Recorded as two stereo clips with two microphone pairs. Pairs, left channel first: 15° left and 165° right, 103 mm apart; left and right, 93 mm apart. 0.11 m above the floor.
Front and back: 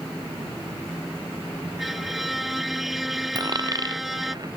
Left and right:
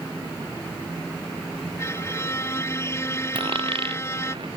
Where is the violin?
110° left.